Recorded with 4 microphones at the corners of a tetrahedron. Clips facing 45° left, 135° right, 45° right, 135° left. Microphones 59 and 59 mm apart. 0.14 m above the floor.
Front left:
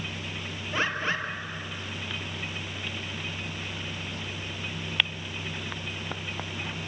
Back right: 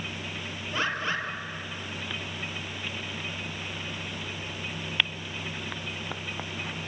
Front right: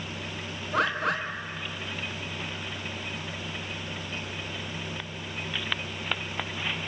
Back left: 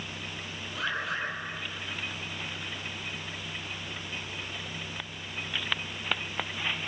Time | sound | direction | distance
0.7 | a bird | 20° right | 3.5 m